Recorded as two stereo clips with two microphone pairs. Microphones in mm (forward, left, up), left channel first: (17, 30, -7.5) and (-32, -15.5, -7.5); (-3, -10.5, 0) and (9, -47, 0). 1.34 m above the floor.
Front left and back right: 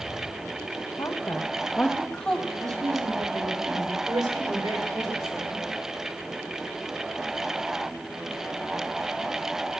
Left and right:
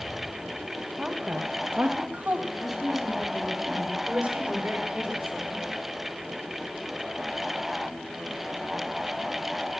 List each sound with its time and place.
1.0 s a woman speaking: 5° left, 1.2 m; by 2.4 s 40° right, 1.9 m
2.5 s a woman speaking: 155° right, 3.5 m
4.1 s a woman speaking: 125° right, 5.5 m